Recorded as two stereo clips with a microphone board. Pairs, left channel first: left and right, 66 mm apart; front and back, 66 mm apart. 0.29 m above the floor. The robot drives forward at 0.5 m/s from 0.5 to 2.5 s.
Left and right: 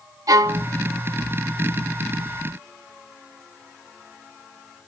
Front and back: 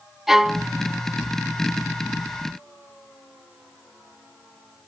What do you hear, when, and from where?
0.3 s a violin: 95° right, 0.6 m; by 0.7 s 105° right, 0.6 m